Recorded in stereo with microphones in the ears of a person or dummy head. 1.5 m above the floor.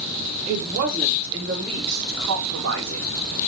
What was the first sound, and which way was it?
A woman speaking, 50° right (ahead or behind).